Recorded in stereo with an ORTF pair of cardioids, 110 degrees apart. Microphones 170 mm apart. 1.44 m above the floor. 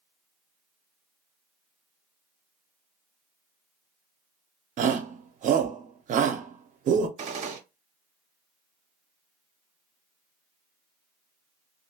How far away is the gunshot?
About 0.8 m.